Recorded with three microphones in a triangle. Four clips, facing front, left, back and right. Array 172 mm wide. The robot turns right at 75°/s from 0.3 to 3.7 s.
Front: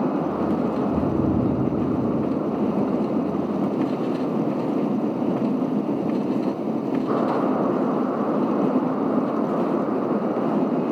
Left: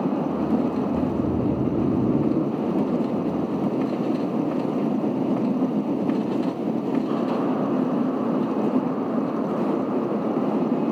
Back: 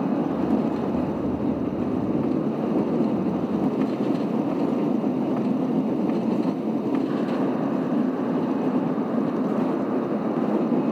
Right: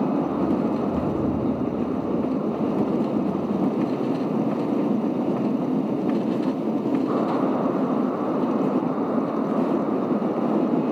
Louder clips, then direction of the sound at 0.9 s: Even, front 3 dB; 15° right.